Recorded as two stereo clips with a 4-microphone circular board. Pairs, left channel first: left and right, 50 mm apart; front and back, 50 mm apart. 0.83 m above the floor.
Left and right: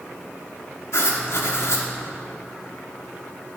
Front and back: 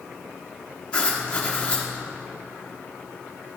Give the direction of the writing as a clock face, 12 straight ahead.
10 o'clock.